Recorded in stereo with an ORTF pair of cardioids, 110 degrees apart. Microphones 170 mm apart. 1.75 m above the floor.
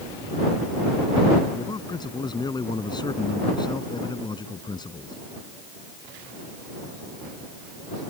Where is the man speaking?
25° left.